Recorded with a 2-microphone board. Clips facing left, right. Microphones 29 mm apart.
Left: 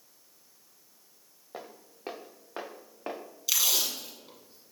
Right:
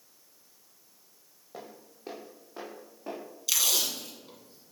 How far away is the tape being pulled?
About 1.2 m.